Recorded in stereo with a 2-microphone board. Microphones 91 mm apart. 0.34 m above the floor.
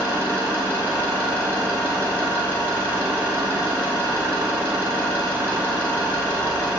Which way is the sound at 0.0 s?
25° right (ahead or behind).